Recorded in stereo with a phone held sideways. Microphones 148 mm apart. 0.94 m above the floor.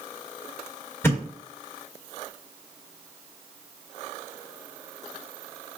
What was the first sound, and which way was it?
A thud, 15° left (ahead or behind).